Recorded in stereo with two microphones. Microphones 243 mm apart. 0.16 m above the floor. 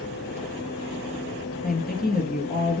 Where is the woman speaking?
40° left (ahead or behind), 3.5 m.